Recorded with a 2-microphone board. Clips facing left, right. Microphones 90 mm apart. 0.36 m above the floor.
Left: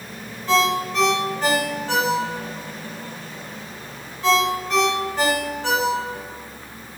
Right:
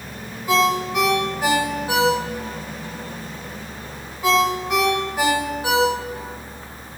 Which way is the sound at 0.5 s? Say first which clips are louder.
Right 1 dB; 10° right (ahead or behind).